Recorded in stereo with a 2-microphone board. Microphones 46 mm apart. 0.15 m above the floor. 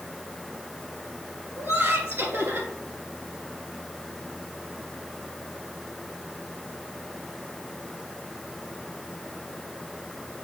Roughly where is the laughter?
Right.